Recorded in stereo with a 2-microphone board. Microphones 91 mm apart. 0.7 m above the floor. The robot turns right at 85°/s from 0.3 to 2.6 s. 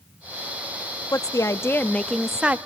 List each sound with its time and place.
1.1 s a woman speaking: 85° left, 0.6 m; by 2.6 s 150° right, 0.6 m